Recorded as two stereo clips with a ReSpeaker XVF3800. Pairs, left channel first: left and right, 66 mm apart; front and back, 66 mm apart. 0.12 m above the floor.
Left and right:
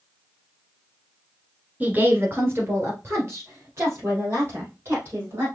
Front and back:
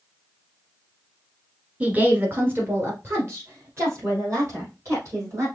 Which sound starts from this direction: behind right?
A woman speaking, at 1.8 s.